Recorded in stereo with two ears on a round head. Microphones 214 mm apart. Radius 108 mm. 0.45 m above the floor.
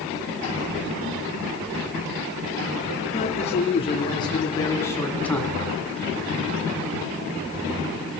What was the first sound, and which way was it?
A man speaking, 30° left (ahead or behind).